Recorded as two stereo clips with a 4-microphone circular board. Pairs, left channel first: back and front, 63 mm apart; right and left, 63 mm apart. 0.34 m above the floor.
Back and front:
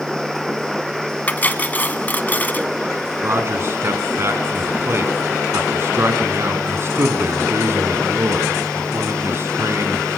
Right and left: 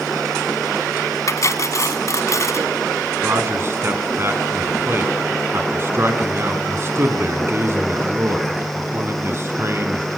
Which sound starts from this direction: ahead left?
A man speaking, at 3.2 s.